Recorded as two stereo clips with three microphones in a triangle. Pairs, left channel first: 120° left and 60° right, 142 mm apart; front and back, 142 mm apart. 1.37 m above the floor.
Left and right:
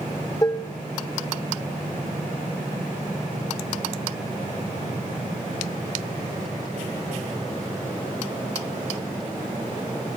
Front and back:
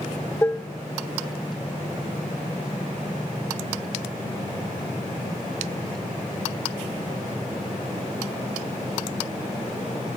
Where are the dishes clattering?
70° left, 0.6 m.